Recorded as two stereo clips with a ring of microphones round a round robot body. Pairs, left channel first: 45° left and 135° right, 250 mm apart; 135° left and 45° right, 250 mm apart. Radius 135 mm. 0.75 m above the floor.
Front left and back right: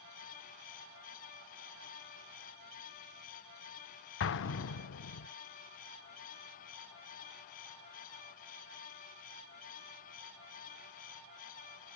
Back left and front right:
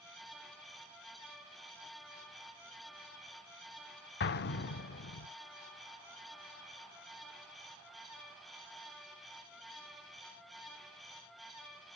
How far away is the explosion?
About 0.6 m.